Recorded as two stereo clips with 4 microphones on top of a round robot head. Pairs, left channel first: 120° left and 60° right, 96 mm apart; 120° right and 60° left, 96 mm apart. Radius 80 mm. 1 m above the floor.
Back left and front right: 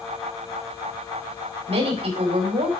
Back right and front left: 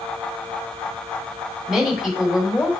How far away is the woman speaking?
About 3 m.